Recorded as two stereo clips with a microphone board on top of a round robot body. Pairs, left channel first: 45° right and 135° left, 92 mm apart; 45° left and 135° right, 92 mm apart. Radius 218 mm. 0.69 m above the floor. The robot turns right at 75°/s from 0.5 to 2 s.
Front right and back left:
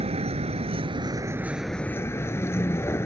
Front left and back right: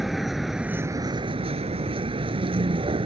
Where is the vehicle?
135° left; by 3.0 s 110° right.